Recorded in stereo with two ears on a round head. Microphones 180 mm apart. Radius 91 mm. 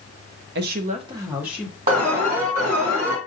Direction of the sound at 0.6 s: 55° right (ahead or behind).